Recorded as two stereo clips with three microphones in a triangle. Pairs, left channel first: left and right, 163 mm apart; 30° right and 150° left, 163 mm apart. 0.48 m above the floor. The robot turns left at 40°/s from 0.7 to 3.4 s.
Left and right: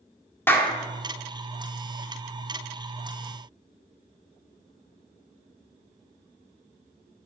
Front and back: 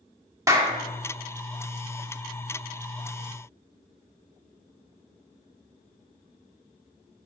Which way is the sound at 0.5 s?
140° left.